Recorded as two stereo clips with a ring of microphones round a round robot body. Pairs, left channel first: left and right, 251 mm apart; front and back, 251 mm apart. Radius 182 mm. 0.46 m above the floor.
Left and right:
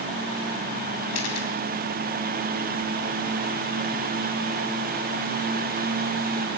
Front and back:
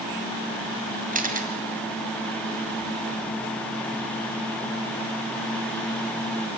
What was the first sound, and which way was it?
A camera shutter, 120° left.